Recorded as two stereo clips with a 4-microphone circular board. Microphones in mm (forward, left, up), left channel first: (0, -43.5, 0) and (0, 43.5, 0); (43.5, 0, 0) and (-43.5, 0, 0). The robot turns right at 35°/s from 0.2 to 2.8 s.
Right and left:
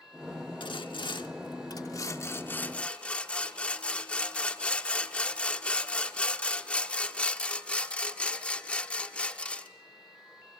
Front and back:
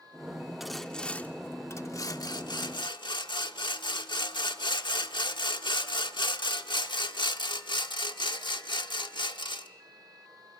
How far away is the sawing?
About 1.0 m.